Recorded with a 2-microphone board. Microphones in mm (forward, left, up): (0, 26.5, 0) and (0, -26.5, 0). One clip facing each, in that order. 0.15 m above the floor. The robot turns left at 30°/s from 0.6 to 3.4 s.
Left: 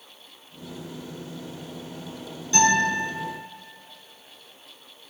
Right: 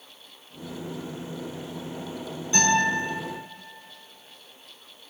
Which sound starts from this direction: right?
A guitar, at 2.5 s.